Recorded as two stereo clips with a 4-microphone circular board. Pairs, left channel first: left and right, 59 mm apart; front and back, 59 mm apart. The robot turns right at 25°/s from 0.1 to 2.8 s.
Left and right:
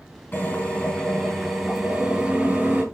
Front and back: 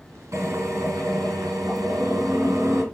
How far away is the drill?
About 5 m.